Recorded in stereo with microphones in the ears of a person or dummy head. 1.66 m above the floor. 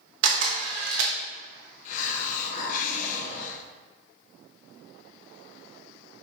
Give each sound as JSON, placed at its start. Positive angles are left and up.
{"t": 0.2, "sound": "a camera shutter", "side_deg": -75, "distance_m": 1.1}
{"t": 1.9, "sound": "a hiss", "side_deg": 50, "distance_m": 0.9}